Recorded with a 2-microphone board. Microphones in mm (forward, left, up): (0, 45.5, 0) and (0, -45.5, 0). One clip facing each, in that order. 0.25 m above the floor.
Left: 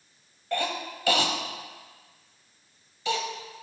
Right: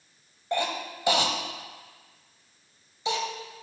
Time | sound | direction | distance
0.5 | a cough | 20° right (ahead or behind) | 0.9 m